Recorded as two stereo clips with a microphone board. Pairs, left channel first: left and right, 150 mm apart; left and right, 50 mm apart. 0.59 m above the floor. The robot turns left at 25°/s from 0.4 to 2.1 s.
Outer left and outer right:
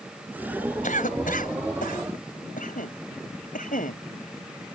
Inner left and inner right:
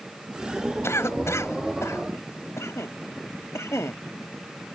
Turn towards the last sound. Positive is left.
turn(degrees=70)  # may be behind; listen again after turning